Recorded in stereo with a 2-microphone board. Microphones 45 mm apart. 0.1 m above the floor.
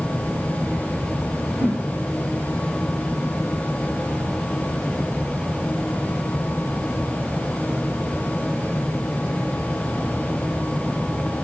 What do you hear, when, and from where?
1.6 s a whoosh: 60° right (ahead or behind), 3.5 m